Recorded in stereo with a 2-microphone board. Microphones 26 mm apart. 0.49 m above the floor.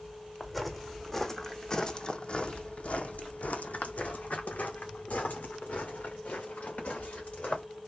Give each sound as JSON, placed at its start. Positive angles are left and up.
{"t": 0.4, "sound": "footsteps", "side_deg": 0, "distance_m": 1.5}